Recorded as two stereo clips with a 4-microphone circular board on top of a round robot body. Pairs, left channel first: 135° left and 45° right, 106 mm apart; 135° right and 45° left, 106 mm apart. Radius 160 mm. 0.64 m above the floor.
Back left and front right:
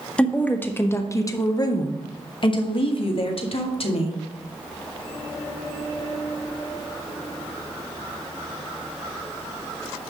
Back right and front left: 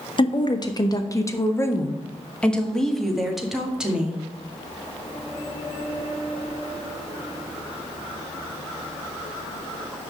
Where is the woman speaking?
150° right, 1.5 m; by 4.2 s 125° left, 2.5 m.